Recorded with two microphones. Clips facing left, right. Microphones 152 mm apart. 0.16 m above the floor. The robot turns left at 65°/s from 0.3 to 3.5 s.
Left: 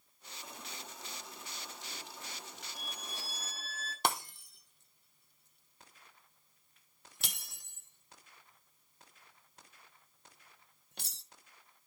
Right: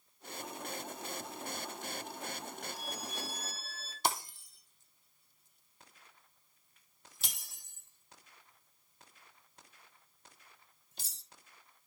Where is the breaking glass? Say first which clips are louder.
Even; 65° left (ahead or behind), 1.0 m.